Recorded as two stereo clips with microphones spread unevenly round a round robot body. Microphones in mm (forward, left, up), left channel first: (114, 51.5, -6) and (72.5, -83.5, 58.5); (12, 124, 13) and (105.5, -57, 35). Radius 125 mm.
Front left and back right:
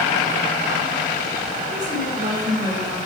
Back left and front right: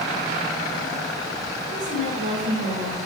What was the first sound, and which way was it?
A woman speaking, 70° right.